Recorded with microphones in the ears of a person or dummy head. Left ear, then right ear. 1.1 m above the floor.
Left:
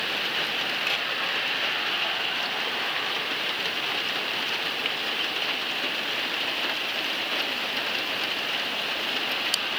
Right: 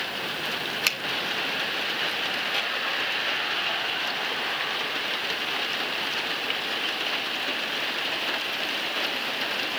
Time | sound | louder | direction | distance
0.9 | a finger snap | right 3 dB | 75° right (ahead or behind) | 1.5 m